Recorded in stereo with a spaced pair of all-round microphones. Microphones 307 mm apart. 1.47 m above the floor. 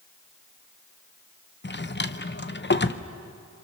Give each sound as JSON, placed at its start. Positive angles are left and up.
{"t": 1.6, "sound": "a drawer", "side_deg": 35, "distance_m": 0.7}